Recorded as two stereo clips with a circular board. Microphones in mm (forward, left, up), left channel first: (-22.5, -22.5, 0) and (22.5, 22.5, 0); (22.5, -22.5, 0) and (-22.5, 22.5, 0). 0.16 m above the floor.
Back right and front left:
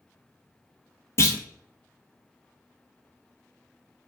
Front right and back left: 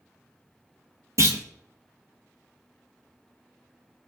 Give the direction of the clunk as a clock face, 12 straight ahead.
6 o'clock.